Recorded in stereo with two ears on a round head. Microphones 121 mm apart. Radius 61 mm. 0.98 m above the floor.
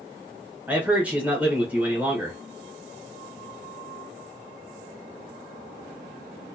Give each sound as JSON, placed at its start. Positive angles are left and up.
{"t": 0.7, "sound": "a man speaking", "side_deg": -10, "distance_m": 1.0}